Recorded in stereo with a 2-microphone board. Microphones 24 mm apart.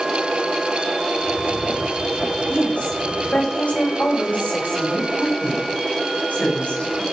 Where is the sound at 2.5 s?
80° left, 9.5 m.